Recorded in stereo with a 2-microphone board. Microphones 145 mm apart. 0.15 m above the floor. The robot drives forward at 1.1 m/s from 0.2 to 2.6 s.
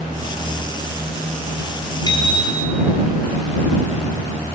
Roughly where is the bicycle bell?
Left.